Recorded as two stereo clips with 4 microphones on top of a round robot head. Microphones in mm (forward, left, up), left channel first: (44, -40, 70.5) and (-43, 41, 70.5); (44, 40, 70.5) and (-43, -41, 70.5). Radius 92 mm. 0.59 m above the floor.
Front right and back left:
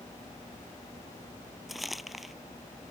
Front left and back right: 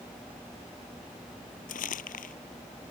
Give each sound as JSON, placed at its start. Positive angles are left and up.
{"t": 1.7, "sound": "crumpling", "azimuth_deg": 50}